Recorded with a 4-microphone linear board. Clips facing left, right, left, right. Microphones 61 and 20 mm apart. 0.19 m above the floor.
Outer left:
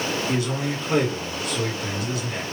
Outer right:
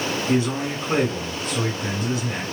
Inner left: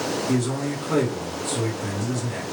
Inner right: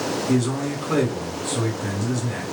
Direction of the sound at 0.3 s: 30° right (ahead or behind).